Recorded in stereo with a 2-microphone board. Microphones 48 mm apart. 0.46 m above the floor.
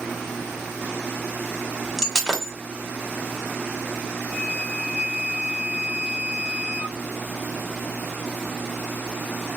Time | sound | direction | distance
2.0 | breaking glass | 5° left (ahead or behind) | 0.9 m
4.2 | a flute | 30° left (ahead or behind) | 1.4 m